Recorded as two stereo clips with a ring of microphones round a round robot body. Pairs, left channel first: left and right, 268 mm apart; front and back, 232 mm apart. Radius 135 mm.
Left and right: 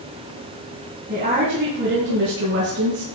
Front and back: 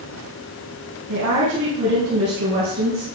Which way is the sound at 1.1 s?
145° right.